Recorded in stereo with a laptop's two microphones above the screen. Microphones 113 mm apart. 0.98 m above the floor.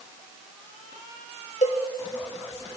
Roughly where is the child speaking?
I don't hear a child speaking.